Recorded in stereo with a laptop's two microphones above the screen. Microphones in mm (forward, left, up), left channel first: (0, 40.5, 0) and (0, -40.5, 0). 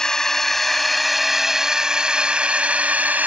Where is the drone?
10° left (ahead or behind); by 3.3 s 20° right (ahead or behind).